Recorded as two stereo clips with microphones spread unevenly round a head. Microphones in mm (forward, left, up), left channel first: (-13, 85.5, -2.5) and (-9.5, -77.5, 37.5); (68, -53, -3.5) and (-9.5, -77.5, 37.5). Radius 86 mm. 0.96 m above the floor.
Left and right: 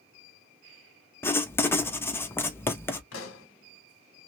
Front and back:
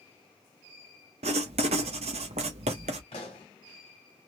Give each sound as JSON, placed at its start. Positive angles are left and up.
{"t": 1.2, "sound": "writing", "azimuth_deg": 165, "distance_m": 0.6}
{"t": 3.1, "sound": "a pop", "azimuth_deg": 80, "distance_m": 1.1}